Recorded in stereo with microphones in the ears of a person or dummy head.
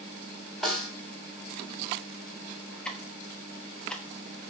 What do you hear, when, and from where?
0.6 s a snare drum: centre (ahead or behind), 2.5 m
2.9 s ticking: 5° left (ahead or behind), 1.5 m